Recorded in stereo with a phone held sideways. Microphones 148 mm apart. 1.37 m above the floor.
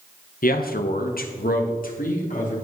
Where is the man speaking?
70° left (ahead or behind), 1.1 m; by 2.5 s 65° left (ahead or behind), 2.5 m.